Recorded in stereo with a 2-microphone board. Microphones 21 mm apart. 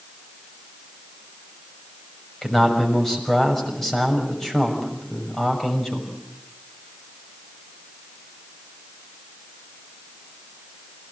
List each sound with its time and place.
2.4 s a man speaking: 15° left (ahead or behind), 6 m